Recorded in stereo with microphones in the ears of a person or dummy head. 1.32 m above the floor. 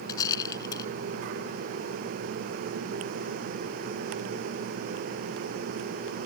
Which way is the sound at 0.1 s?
20° left (ahead or behind).